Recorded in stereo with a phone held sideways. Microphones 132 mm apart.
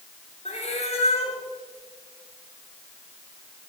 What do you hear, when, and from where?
0.5 s a cat meowing: 55° left (ahead or behind), 2.5 m